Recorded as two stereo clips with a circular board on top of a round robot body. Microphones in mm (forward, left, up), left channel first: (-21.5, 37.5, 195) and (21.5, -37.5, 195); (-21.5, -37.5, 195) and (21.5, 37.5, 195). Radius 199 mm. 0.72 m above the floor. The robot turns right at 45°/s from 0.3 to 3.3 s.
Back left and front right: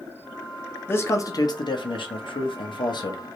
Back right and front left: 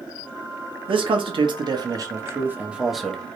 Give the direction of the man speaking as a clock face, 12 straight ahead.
10 o'clock.